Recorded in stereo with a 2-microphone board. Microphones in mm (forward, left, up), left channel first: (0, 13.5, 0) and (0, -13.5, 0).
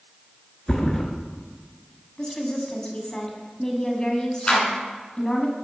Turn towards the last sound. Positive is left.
turn(degrees=35)  # may be behind; listen again after turning